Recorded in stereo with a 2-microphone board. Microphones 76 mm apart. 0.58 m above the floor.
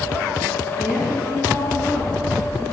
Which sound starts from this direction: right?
A woman speaking, at 0.8 s.